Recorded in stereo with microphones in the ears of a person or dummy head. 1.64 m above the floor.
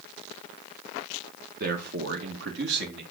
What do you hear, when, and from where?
1.6 s a man speaking: 55° right (ahead or behind), 1.4 m; by 3.0 s 70° right (ahead or behind), 2 m